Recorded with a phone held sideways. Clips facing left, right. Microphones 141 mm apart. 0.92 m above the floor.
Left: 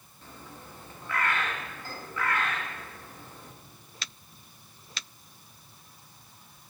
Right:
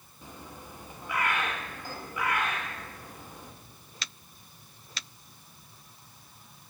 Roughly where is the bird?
Centre.